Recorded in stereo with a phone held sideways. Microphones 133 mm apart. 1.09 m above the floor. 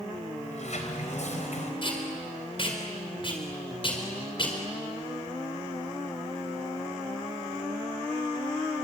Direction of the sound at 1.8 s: 40° left (ahead or behind).